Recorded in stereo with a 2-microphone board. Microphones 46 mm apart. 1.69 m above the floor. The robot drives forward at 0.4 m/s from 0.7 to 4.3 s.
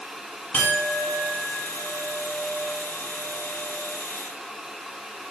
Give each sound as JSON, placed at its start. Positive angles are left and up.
{"t": 0.5, "sound": "a clink", "side_deg": 40, "distance_m": 5.0}